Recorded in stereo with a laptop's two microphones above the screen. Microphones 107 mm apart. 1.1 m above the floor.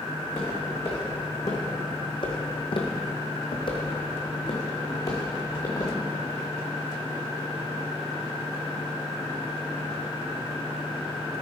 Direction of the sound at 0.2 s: 20° left (ahead or behind).